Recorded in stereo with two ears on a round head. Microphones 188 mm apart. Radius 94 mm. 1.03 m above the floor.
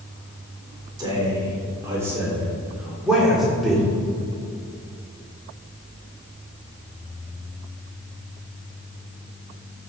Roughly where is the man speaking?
Right.